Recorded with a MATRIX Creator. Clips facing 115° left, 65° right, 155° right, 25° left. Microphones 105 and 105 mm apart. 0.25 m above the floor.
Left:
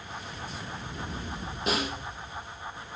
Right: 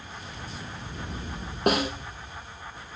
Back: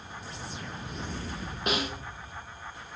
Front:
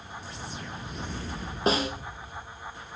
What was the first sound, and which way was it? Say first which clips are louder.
A snare drum: right 6 dB, front 5 dB; 35° right.